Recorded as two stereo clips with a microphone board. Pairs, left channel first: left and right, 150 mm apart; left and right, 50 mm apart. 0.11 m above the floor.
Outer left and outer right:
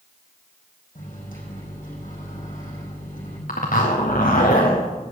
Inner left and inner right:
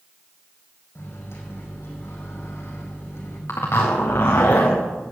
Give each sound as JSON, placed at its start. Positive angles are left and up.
{"t": 0.9, "sound": "a microwave", "side_deg": 65, "distance_m": 5.0}
{"t": 3.5, "sound": "a zipper", "side_deg": 75, "distance_m": 3.5}